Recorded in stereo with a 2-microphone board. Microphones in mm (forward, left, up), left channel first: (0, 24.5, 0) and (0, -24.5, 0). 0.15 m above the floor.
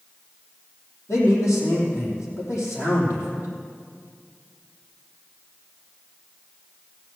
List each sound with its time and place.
1.1 s a man speaking: 75° left (ahead or behind), 5 m